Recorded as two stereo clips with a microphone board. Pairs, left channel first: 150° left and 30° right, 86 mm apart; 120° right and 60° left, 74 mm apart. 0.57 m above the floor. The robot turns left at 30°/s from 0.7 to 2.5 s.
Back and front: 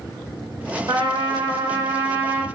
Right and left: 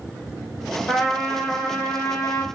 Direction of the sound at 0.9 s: 45° right.